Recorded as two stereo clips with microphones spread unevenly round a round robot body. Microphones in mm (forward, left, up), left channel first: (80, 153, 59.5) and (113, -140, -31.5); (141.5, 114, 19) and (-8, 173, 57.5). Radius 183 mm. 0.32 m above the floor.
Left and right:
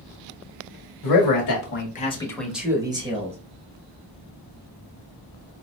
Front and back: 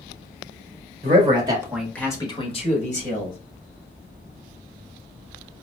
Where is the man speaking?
115° left, 1.2 m; by 3.4 s 25° right, 1.9 m.